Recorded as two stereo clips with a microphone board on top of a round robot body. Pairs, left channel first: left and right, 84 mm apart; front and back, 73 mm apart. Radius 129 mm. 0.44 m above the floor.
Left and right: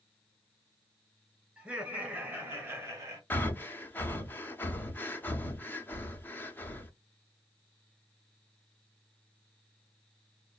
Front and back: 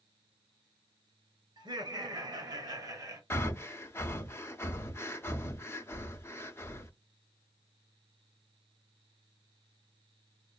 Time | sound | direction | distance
1.6 | laughter | 165° right | 2.5 m
3.3 | breathing | 35° left | 0.9 m